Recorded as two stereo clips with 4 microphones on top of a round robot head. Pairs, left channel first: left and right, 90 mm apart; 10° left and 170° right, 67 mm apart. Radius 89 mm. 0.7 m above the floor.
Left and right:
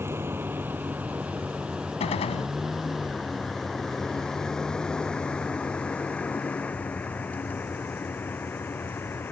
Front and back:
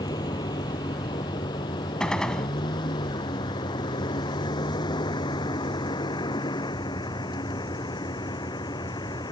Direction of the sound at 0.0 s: 25° right.